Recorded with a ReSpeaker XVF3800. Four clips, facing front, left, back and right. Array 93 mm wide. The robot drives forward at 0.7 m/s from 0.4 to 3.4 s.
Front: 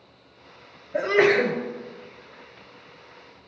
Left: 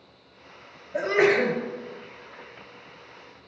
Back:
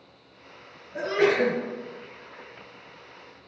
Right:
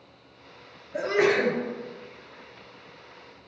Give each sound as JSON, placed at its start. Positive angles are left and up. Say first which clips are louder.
{"t": 0.9, "sound": "a sneeze", "louder": "left 2 dB, front 3 dB", "azimuth_deg": 10, "distance_m": 1.9}